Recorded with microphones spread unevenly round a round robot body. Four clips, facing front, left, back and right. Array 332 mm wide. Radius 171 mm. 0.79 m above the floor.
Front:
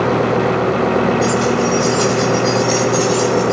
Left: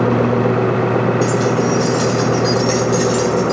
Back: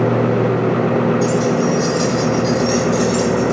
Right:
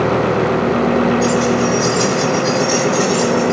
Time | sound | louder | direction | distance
1.2 | keys jangling | right 1 dB, front 1 dB | 145° left | 5.5 m